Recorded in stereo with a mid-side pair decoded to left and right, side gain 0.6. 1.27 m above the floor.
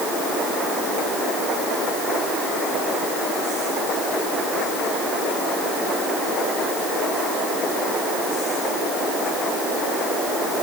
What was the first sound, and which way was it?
Only background noise.